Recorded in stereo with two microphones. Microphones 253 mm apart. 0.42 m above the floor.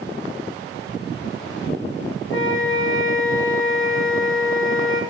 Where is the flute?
55° left (ahead or behind), 1.1 m.